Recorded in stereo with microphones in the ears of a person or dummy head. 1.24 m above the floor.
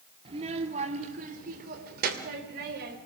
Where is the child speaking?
30° right (ahead or behind), 1.8 m; by 3.0 s 60° right (ahead or behind), 3.5 m.